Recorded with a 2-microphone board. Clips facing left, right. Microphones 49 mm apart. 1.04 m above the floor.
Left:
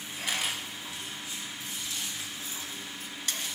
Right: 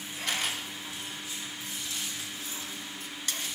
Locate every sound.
0.3 s a camera shutter: 10° left (ahead or behind), 5 m